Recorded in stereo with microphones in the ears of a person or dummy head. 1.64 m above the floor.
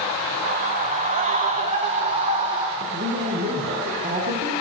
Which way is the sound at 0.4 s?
50° right (ahead or behind).